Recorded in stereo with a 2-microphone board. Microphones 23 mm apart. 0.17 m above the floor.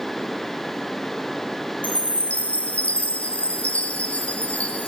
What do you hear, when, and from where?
1.8 s a chime: 75° left (ahead or behind), 2.5 m